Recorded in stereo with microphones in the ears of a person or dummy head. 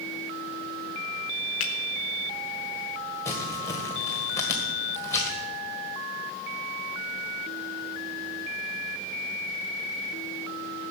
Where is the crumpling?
15° left (ahead or behind), 1.7 m.